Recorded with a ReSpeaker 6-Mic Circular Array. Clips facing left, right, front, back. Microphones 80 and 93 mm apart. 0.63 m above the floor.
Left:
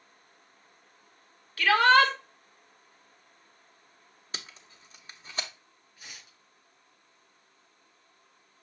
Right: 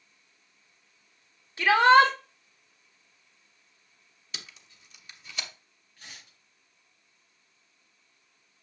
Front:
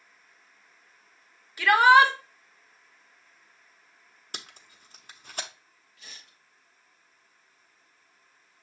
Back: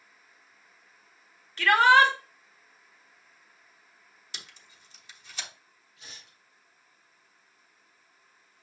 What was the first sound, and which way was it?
A shout, 65° right.